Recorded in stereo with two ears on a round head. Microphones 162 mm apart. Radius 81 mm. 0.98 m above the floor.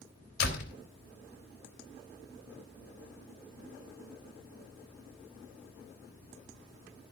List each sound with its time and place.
0.4 s a door slam: 65° left (ahead or behind), 3.5 m